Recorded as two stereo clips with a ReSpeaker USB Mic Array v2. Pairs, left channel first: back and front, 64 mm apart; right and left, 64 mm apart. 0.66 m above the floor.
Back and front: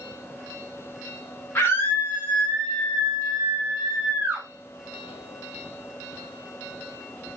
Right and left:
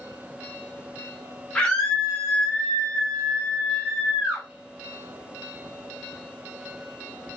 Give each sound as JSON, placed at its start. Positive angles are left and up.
{"t": 1.6, "sound": "a scream", "azimuth_deg": -160, "distance_m": 1.3}